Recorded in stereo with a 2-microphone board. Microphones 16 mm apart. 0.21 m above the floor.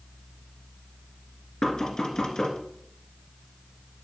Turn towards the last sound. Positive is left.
turn(degrees=65)  # may be behind; listen again after turning